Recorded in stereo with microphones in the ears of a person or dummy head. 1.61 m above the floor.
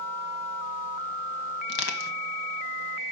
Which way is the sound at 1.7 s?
60° left (ahead or behind).